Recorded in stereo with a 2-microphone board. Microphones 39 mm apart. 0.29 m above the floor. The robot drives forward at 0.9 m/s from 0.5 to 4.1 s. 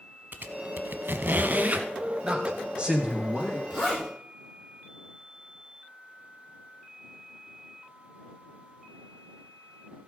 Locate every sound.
0.3 s a squeak: 55° right (ahead or behind), 0.9 m; by 1.9 s 40° right (ahead or behind), 1.2 m
2.2 s a man speaking: 30° right (ahead or behind), 1.9 m; by 3.6 s 20° right (ahead or behind), 2.5 m
3.7 s a zipper: 5° left (ahead or behind), 6.5 m